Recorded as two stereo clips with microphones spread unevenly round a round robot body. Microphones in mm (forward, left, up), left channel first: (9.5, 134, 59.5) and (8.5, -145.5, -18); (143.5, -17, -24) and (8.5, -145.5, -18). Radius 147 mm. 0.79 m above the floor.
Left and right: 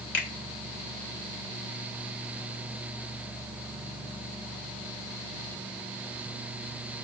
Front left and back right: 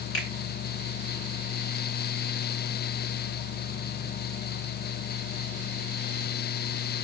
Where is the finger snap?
65° left, 2.5 m.